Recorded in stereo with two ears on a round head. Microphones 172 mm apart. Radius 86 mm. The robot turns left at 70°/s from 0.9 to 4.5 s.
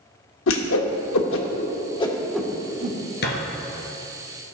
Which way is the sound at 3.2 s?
60° left (ahead or behind).